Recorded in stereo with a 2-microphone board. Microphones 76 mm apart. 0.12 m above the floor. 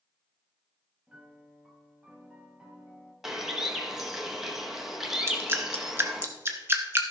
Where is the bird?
5° right (ahead or behind), 1.1 m.